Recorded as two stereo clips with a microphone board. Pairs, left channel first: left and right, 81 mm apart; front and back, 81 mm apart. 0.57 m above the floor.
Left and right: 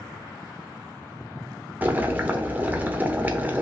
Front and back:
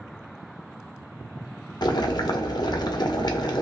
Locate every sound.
1.8 s boiling: 25° right, 0.8 m